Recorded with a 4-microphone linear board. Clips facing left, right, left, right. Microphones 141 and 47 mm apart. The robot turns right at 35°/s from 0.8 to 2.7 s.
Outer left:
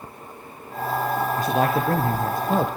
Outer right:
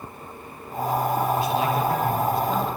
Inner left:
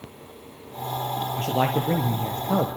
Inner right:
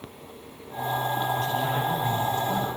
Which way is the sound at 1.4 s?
50° left.